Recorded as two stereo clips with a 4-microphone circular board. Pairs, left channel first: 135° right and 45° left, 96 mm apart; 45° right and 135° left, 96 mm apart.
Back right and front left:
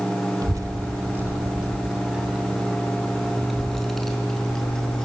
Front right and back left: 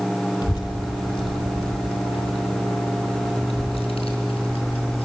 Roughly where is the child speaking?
Ahead.